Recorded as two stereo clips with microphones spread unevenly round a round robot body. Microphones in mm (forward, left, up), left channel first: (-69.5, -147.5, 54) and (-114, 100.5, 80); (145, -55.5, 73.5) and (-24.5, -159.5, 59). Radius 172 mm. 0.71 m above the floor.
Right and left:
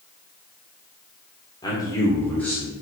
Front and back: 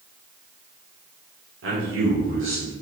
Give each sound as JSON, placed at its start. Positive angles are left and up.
{"t": 1.6, "sound": "a man speaking", "azimuth_deg": -155, "distance_m": 1.7}